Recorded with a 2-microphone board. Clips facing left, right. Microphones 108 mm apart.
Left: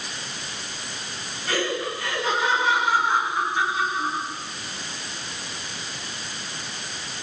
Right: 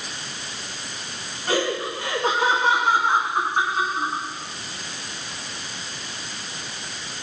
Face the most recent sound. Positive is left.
turn(degrees=-45)  # may be behind; listen again after turning